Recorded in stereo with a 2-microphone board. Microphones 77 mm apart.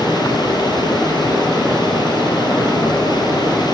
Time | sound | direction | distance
0.0 | running water | 70° left (ahead or behind) | 5.5 m